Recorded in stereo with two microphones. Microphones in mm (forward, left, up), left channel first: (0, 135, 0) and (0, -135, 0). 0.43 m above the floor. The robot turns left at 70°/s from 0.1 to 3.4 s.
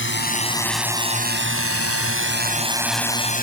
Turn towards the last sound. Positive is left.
turn(degrees=35)  # may be behind; listen again after turning